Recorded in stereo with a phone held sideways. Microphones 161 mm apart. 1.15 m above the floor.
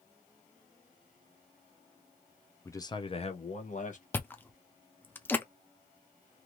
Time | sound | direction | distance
2.6 | a man speaking | 15° left (ahead or behind) | 0.6 m
4.1 | chewing | 15° left (ahead or behind) | 0.6 m